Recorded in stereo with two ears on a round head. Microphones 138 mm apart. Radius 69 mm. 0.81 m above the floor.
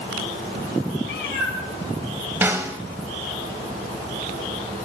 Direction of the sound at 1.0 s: 80° left.